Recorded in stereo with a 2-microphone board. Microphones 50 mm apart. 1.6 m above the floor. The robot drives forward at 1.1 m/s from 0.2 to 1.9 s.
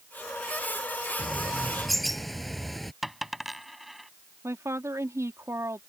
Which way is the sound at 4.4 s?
80° right.